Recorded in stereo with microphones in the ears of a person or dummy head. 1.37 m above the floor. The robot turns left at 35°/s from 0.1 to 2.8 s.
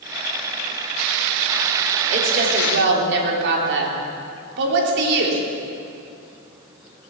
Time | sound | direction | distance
2.1 | a woman speaking | 35° right (ahead or behind) | 3 m